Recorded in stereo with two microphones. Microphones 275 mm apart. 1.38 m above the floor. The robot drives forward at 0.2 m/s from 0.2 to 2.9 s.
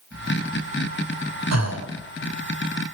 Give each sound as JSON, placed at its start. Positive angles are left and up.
{"t": 1.5, "sound": "breathing", "side_deg": -70, "distance_m": 0.8}